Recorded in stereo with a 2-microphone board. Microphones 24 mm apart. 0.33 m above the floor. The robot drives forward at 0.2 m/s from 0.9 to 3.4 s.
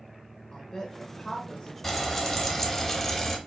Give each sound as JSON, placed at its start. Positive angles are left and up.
{"t": 0.5, "sound": "a woman speaking", "side_deg": 20, "distance_m": 0.9}
{"t": 1.8, "sound": "frying", "side_deg": 10, "distance_m": 0.8}